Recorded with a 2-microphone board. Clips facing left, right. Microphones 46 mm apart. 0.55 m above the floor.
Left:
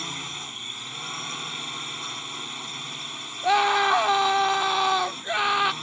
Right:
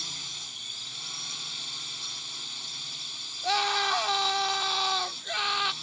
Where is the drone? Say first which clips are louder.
Left 6 dB; 35° left (ahead or behind).